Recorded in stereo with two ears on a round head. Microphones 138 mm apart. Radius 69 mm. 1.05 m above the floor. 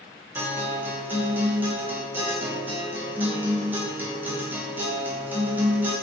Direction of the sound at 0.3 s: 10° right (ahead or behind).